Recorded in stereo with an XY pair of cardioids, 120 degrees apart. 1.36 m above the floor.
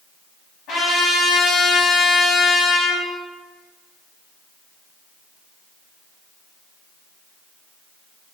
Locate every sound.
0.7 s a trumpet: 70° left, 1.1 m